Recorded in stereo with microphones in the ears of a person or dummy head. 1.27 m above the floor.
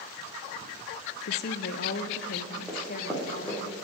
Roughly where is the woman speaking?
Left.